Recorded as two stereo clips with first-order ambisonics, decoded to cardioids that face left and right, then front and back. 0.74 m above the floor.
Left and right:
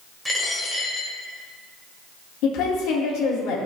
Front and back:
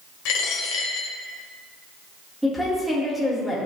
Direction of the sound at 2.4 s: 90° left.